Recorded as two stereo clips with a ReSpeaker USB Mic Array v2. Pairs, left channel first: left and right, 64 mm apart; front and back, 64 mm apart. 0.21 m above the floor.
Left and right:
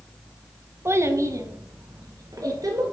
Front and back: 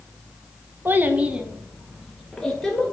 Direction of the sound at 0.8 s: 130° right.